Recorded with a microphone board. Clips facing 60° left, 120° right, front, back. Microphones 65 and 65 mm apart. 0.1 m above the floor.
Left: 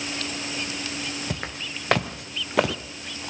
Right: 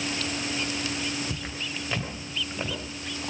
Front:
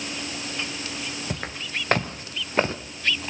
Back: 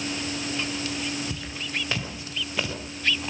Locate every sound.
1.3 s footsteps: 35° left, 3.5 m; by 2.8 s 55° left, 1.8 m